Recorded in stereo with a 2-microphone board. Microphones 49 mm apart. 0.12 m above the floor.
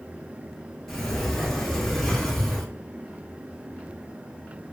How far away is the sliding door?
About 0.9 m.